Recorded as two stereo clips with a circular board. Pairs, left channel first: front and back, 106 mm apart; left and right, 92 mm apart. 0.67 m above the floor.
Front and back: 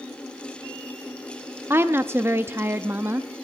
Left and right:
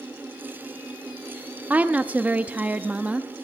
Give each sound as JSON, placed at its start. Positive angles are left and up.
{"t": 1.7, "sound": "a woman speaking", "azimuth_deg": -145, "distance_m": 0.6}